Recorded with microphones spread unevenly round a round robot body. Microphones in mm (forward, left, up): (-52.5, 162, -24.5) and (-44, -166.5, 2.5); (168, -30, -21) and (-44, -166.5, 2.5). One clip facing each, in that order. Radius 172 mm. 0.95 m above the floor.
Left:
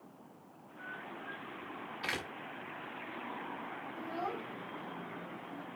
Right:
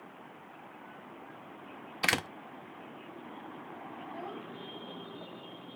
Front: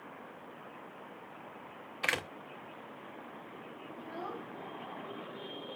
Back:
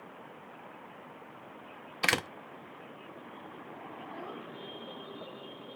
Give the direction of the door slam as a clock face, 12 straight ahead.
4 o'clock.